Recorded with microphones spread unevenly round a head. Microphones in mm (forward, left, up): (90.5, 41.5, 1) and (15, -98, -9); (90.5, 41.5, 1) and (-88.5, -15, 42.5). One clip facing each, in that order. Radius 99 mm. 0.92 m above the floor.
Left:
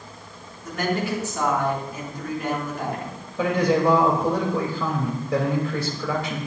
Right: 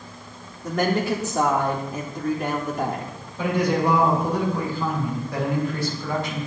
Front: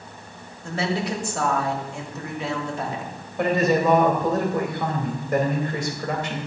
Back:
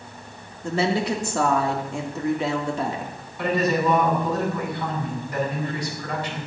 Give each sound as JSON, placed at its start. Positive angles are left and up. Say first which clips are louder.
{"t": 0.6, "sound": "a woman speaking", "louder": "right 3 dB, back 3 dB", "azimuth_deg": 180, "distance_m": 2.5}
{"t": 3.4, "sound": "a man speaking", "louder": "left 2 dB, front 2 dB", "azimuth_deg": 60, "distance_m": 3.5}